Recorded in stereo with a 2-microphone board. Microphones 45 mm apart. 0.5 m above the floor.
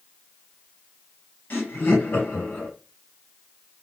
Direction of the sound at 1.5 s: 45° left (ahead or behind).